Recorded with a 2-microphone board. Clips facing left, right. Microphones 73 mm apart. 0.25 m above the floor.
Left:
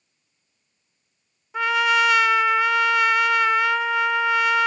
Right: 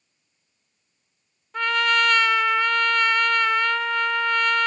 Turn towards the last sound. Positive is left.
turn(degrees=5)  # may be behind; listen again after turning